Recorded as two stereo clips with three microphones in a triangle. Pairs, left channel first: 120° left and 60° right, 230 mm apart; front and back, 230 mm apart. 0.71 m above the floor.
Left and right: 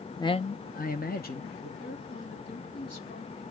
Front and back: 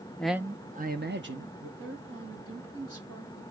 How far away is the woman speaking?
About 5 m.